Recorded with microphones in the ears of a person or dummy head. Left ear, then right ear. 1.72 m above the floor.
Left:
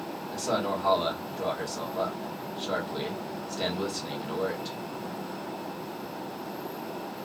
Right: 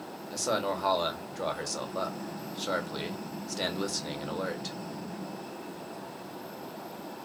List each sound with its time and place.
0.3 s a man speaking: 70° right (ahead or behind), 1.0 m